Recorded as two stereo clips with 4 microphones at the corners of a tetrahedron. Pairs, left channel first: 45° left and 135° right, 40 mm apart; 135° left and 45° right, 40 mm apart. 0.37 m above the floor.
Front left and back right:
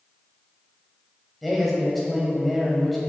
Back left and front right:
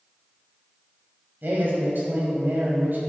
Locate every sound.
1.4 s a man speaking: 45° right, 2 m